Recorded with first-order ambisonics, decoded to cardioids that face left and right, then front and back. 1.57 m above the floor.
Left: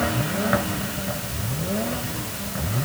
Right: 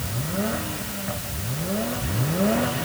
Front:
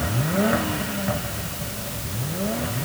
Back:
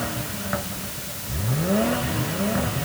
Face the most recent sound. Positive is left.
No sound to turn to.